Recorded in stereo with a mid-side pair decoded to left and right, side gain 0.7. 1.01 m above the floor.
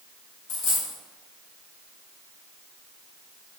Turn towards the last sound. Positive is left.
turn(degrees=65)